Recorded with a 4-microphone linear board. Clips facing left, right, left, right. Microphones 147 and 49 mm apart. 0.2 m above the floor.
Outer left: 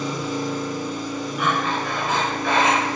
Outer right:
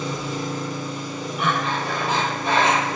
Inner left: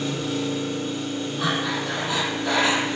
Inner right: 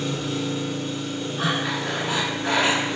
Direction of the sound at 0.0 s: 25° right (ahead or behind).